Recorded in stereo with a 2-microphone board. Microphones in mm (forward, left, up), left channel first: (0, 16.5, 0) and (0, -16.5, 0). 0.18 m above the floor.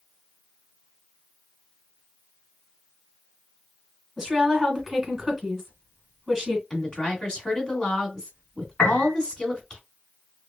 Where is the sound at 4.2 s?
Centre (ahead or behind), 1.5 m.